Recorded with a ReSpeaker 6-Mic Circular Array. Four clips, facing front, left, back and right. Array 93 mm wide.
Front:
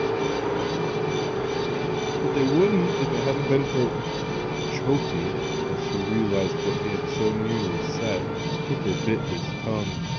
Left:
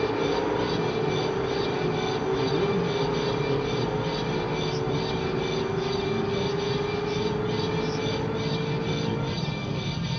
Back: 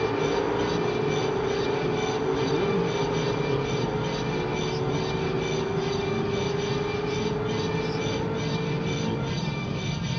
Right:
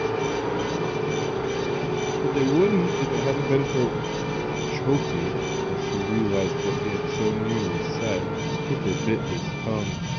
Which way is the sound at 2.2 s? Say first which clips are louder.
Right 7 dB, front 8 dB; 50° right.